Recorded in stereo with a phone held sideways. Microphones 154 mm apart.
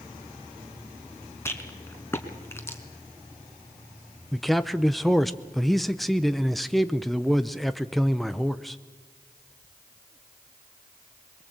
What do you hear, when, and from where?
1.4 s a rattle: 15° left (ahead or behind), 1.7 m
4.3 s a man speaking: centre (ahead or behind), 0.6 m